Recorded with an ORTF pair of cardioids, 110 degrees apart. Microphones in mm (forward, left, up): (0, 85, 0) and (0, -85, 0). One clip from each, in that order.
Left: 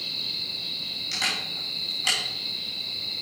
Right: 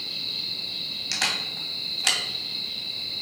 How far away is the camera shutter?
About 3 m.